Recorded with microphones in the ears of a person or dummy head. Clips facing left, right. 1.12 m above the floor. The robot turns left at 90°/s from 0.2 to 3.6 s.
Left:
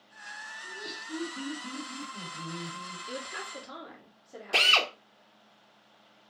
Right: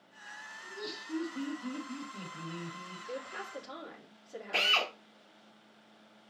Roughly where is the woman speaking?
Ahead left.